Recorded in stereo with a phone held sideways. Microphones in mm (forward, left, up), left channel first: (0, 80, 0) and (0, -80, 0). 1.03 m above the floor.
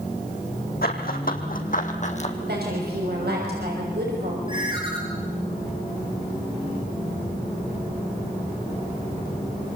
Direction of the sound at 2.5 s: 85° right.